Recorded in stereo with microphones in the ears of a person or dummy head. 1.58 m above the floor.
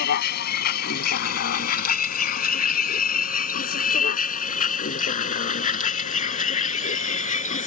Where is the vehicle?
60° left (ahead or behind); by 7.7 s 40° left (ahead or behind).